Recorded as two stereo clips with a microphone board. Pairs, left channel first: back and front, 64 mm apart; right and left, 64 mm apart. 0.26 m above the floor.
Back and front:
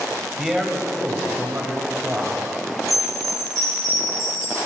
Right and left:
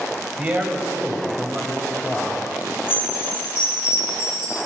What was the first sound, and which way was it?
A man speaking, 85° left.